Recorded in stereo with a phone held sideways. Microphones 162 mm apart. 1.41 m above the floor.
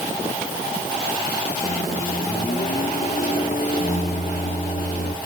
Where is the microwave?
45° left (ahead or behind), 2.5 m.